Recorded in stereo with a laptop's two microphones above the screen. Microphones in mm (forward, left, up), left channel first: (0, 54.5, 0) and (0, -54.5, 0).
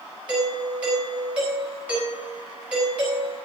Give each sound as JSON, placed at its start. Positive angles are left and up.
{"t": 0.3, "sound": "a doorbell", "side_deg": -10, "distance_m": 4.0}